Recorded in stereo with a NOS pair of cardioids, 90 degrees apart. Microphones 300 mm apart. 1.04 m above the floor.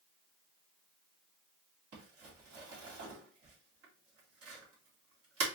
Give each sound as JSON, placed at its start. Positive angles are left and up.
{"t": 1.9, "sound": "crumpling", "azimuth_deg": -55, "distance_m": 2.5}